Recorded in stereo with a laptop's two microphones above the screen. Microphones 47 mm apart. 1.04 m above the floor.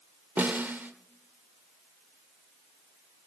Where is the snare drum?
40° right (ahead or behind), 1.0 m.